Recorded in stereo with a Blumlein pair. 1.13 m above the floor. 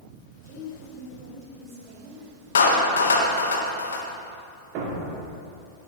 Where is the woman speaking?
45° right, 3.5 m; by 2.3 s 30° right, 3 m.